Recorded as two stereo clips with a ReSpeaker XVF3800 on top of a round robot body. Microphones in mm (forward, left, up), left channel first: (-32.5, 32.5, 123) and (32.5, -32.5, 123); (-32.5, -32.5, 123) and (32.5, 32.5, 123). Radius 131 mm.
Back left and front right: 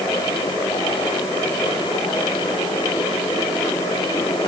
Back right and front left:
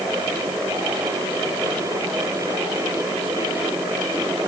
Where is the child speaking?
No child speaking in this recording.